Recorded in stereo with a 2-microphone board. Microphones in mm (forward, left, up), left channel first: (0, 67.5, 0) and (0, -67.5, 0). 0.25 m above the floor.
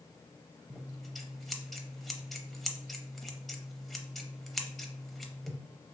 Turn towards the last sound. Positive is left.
turn(degrees=0)  # may be behind; listen again after turning